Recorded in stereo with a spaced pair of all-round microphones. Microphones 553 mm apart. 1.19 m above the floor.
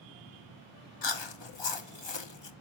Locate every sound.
1.0 s chewing: 50° left (ahead or behind), 0.7 m